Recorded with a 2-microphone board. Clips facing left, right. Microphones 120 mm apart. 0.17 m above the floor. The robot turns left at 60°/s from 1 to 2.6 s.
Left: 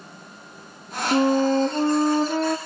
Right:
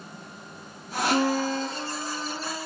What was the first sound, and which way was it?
A flute, 165° left.